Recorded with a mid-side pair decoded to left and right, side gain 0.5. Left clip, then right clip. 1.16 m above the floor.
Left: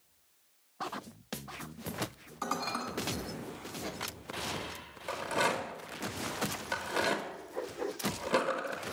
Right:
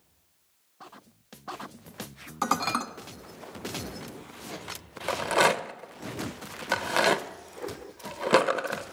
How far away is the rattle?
About 0.8 m.